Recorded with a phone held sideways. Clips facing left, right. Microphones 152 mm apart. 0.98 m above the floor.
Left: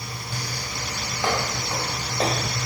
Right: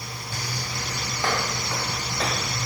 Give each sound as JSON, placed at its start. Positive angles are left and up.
{"t": 1.2, "sound": "footsteps", "side_deg": 15, "distance_m": 2.0}